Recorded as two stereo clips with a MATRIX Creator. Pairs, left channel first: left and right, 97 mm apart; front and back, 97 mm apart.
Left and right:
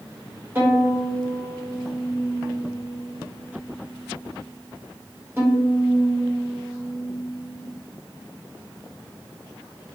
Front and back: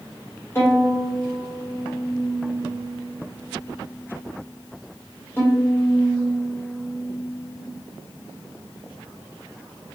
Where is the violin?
40° right, 1.3 m.